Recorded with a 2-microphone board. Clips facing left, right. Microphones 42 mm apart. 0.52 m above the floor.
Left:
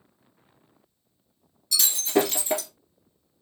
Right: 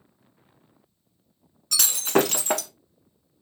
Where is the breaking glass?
65° right (ahead or behind), 1.3 m.